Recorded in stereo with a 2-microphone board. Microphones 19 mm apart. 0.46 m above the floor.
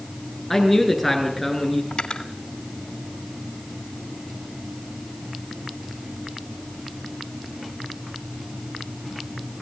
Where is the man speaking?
10° left (ahead or behind), 7.5 m; by 1.8 s 5° left (ahead or behind), 7.5 m.